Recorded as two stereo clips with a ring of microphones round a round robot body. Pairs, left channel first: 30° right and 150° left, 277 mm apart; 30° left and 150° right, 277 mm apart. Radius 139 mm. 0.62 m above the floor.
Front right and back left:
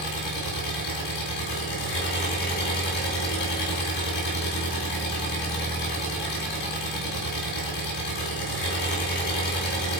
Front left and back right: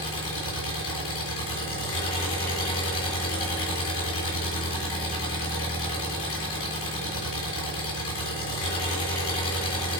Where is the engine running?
15° right, 2.5 m.